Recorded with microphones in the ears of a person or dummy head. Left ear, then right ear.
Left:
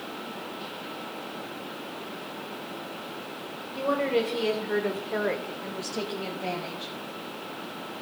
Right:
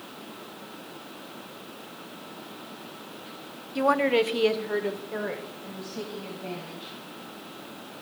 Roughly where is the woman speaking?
Right.